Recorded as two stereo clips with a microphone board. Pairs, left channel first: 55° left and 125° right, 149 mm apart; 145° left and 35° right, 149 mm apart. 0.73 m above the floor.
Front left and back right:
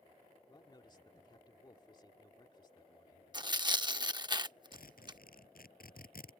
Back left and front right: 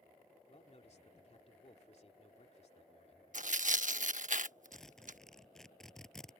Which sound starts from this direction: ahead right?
Tearing paper, at 3.3 s.